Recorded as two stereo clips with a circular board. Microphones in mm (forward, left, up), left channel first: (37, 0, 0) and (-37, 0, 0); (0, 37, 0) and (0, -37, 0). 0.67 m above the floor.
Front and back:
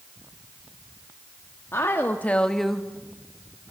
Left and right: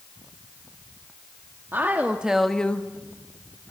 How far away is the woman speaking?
About 1.2 m.